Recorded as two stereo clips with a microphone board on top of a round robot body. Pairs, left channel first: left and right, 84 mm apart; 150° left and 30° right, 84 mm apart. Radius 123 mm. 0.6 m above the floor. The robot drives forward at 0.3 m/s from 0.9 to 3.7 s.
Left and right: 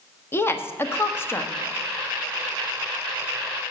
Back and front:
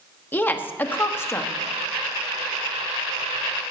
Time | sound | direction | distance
0.3 | a woman speaking | 115° left | 1.1 m